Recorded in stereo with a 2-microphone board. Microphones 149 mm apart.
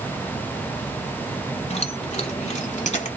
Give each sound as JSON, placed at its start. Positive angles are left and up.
{"t": 1.7, "sound": "keys jangling", "side_deg": 50, "distance_m": 1.5}